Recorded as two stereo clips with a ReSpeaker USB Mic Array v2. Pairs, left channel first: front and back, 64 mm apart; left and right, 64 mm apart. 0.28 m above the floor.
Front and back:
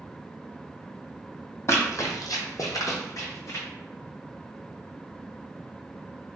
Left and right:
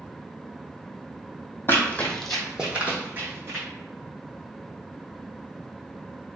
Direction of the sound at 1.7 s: 40° left.